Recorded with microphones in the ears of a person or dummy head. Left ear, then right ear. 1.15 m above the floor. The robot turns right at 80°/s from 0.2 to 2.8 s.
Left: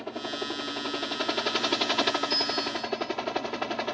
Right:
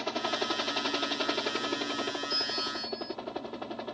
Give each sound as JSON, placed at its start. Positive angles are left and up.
{"t": 0.0, "sound": "a helicopter", "azimuth_deg": -80}
{"t": 2.3, "sound": "a bell", "azimuth_deg": 170}